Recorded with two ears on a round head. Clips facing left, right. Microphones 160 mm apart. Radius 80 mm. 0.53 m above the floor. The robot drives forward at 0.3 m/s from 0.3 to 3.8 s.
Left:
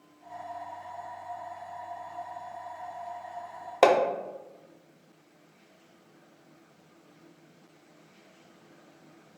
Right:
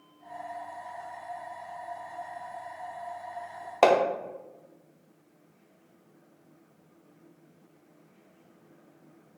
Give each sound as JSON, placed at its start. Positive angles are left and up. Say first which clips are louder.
{"t": 3.8, "sound": "hammering", "louder": "even", "side_deg": 5, "distance_m": 0.5}